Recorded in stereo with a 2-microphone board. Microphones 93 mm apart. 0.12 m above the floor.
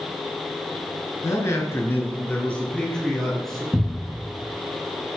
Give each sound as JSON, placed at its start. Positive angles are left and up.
{"t": 1.2, "sound": "a man speaking", "side_deg": 35, "distance_m": 1.3}
{"t": 3.7, "sound": "a cupboard door", "side_deg": -10, "distance_m": 0.7}